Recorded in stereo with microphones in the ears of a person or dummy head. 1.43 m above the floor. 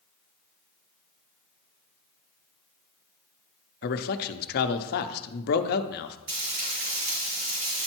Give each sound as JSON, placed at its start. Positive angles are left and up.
{"t": 3.8, "sound": "a man speaking", "side_deg": 55, "distance_m": 0.7}
{"t": 6.3, "sound": "frying", "side_deg": -65, "distance_m": 4.0}